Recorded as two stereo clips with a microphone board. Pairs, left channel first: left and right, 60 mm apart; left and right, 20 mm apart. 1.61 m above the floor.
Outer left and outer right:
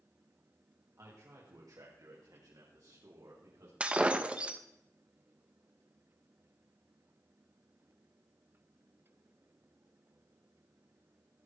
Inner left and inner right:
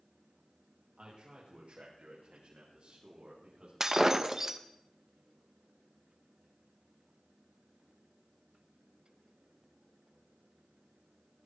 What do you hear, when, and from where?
1.0 s a man speaking: 60° right (ahead or behind), 2.5 m; by 3.7 s 65° right (ahead or behind), 4.5 m
3.8 s breaking glass: 20° right (ahead or behind), 0.8 m